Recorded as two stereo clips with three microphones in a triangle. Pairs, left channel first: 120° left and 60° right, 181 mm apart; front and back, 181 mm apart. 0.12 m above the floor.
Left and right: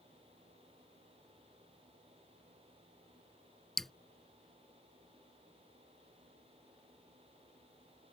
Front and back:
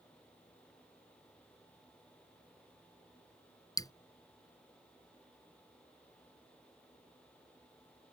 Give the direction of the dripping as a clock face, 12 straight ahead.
11 o'clock.